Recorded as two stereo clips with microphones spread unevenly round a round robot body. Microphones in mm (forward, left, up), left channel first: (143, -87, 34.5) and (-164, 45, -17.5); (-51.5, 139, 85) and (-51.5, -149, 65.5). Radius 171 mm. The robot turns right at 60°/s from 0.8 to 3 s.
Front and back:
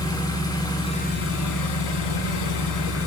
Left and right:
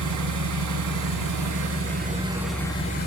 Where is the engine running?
105° right, 5 m; by 3.1 s 30° left, 5 m.